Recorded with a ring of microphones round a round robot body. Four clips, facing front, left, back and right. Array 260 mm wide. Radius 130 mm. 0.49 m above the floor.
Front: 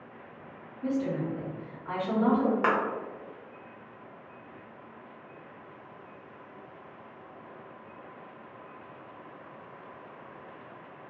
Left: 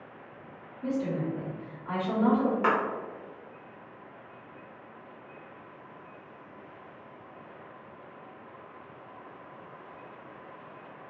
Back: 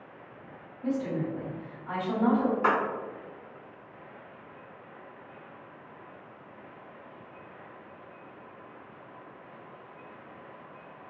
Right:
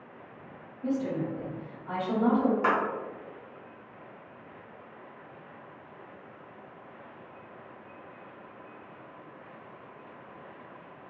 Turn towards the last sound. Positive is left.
turn(degrees=10)